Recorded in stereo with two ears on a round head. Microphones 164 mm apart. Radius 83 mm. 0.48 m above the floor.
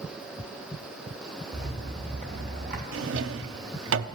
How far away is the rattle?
About 2.5 m.